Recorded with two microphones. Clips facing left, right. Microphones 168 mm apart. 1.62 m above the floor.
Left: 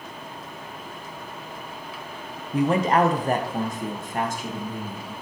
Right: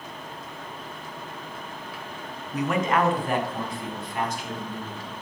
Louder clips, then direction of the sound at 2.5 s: Left 4 dB; 30° left (ahead or behind).